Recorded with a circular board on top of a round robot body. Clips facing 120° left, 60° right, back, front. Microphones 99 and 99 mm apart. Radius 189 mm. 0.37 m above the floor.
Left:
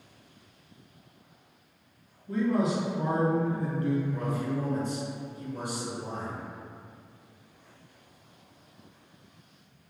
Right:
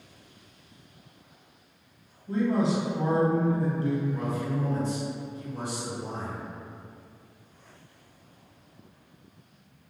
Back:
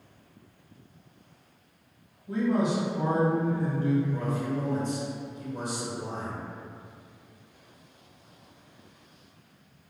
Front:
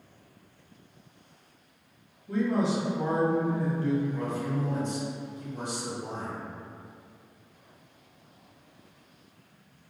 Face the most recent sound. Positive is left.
turn(degrees=-175)